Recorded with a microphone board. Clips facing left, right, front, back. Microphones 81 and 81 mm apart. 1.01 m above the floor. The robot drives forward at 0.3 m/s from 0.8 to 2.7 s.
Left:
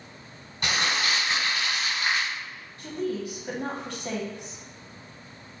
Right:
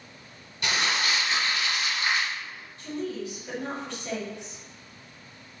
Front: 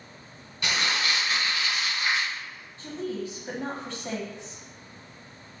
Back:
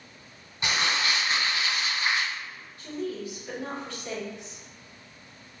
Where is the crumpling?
120° left, 1.3 m; by 2.3 s 135° left, 1.5 m.